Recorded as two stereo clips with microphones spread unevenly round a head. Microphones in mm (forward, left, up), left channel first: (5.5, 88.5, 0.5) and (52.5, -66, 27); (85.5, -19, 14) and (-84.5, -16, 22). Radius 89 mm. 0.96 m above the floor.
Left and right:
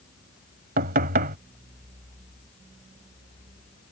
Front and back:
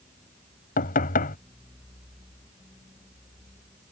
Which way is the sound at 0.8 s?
40° right.